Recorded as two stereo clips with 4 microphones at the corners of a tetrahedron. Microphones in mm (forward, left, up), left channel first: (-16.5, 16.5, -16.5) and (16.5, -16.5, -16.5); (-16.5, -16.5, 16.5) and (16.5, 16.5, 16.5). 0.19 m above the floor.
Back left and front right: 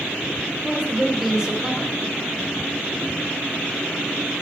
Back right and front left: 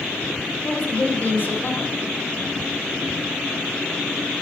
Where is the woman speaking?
115° right, 2.5 m.